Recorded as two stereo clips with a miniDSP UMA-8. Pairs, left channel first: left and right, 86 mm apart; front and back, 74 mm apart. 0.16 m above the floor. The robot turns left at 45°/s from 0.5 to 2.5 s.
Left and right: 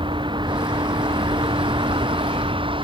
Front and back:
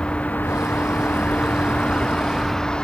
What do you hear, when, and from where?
0.0 s a vehicle: 75° right